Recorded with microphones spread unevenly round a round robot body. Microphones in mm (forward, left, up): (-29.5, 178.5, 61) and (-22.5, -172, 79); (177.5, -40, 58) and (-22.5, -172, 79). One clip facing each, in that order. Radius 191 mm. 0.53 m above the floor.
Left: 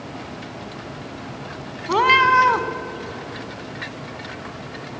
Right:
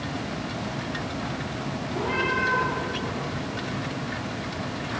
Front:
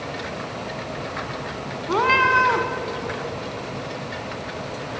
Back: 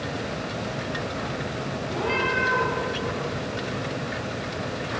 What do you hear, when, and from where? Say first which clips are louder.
1.9 s a cat meowing: left 7 dB, front 5 dB; 80° left, 1.5 m